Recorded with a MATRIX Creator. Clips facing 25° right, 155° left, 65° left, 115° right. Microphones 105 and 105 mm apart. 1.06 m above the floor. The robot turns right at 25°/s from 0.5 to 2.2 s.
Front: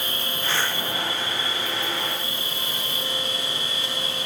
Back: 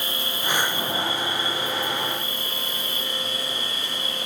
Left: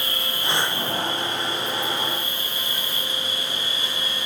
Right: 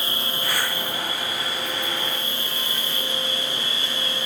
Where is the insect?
50° right, 5.5 m; by 4.3 s 5° right, 5.5 m.